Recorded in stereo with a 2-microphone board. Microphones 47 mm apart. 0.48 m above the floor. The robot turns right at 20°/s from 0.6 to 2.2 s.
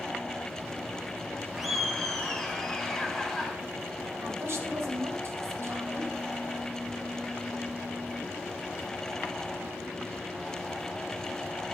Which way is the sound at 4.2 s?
65° right (ahead or behind).